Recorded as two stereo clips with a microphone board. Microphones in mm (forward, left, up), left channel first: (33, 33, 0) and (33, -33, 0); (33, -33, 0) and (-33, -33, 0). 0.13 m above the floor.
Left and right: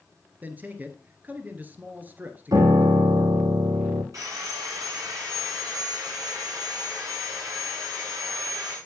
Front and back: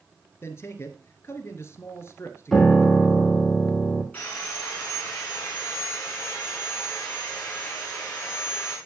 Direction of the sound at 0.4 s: 35° right.